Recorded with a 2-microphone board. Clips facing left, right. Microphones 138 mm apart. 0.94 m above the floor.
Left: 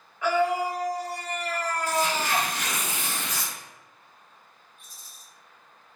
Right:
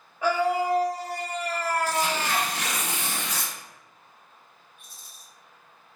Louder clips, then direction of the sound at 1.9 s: Left 1 dB; 70° right (ahead or behind).